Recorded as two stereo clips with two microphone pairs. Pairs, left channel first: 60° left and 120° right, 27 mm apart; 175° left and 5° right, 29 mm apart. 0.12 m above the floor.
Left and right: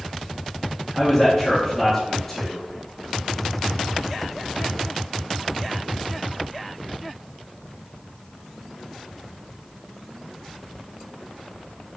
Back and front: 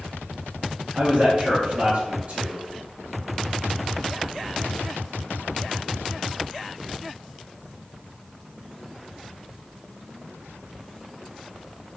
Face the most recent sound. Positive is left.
turn(degrees=-15)